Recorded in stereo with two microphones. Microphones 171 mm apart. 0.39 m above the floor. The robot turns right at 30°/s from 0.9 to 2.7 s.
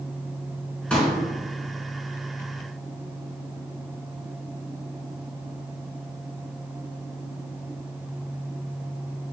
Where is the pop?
10° left (ahead or behind), 3.5 m; by 1.1 s centre (ahead or behind), 3.5 m.